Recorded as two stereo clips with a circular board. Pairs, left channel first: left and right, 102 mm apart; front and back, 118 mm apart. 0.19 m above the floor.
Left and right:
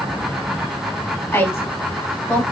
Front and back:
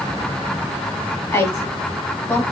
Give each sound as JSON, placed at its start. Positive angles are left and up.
{"t": 1.3, "sound": "a woman speaking", "azimuth_deg": 45, "distance_m": 1.1}